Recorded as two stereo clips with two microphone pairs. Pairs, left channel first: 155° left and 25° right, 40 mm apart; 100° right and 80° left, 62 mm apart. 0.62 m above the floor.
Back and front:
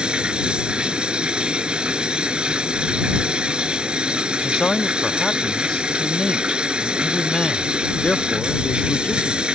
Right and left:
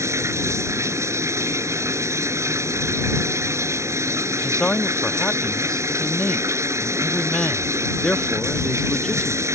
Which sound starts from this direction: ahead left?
Running water, at 0.0 s.